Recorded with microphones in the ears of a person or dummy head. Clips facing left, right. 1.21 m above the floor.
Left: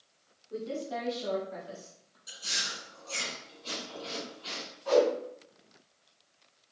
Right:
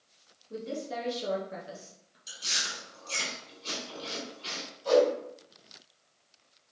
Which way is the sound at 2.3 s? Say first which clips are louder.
Right 1 dB; 40° right (ahead or behind).